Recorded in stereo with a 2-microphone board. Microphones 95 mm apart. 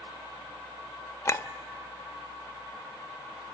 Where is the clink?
30° left (ahead or behind), 0.7 m.